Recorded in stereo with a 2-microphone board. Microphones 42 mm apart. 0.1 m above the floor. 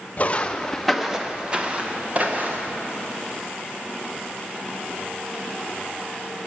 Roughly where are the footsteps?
Left.